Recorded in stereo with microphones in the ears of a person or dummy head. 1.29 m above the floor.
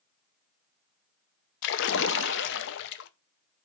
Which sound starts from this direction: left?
A splash, at 1.6 s.